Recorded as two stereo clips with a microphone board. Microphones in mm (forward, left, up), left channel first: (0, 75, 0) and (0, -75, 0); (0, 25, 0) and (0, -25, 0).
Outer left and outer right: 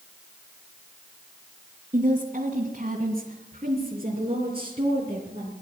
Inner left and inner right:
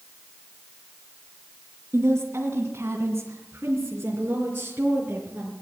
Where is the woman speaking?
55° right (ahead or behind), 2.5 m; by 5.5 s 30° right (ahead or behind), 4 m.